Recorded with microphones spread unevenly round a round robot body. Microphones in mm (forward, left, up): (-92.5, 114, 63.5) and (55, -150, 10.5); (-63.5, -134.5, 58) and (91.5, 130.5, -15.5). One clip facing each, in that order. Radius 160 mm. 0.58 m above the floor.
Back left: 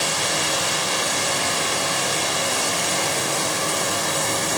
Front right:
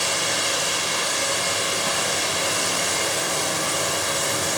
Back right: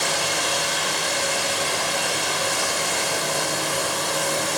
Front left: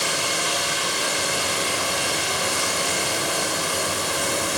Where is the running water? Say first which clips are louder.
Back left 2 dB, back right 1 dB; 145° left, 9 m.